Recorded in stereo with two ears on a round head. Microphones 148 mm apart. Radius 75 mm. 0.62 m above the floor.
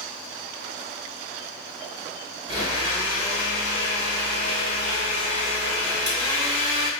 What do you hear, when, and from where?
2.5 s a blender: 25° right (ahead or behind), 2 m